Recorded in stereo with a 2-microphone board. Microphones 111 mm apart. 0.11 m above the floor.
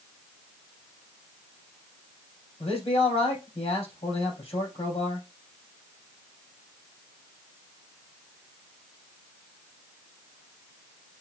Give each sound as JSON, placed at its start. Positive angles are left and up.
{"t": 2.6, "sound": "a man speaking", "side_deg": 60, "distance_m": 3.5}